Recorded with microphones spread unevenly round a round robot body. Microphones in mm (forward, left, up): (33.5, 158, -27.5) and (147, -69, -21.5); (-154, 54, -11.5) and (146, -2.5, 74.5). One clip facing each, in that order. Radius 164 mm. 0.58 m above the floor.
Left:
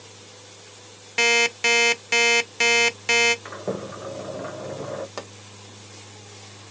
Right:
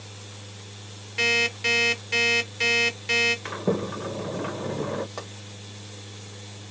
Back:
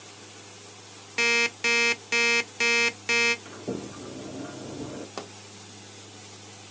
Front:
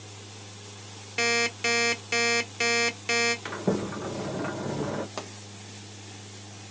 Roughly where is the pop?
Left.